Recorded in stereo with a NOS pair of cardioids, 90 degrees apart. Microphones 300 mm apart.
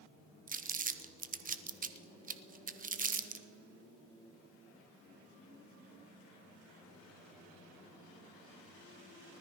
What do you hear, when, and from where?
0.5 s crumpling: 25° right, 0.7 m